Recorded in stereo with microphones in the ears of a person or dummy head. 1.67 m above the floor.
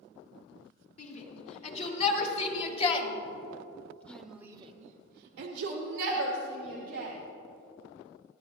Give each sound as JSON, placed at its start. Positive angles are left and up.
{"t": 1.0, "sound": "a shout", "side_deg": 40, "distance_m": 3.0}